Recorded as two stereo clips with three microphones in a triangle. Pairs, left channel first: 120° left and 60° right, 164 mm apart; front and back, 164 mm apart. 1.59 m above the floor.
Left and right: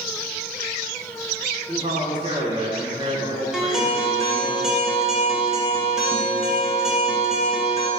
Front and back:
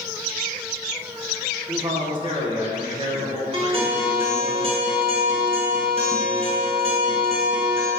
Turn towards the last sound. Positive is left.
turn(degrees=-145)